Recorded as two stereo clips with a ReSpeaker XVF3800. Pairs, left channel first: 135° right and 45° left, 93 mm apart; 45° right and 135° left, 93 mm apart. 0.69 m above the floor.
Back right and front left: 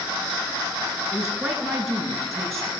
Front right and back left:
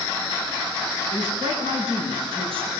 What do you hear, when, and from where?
1.1 s a woman speaking: 130° left, 9.5 m; by 2.7 s 135° left, 10.5 m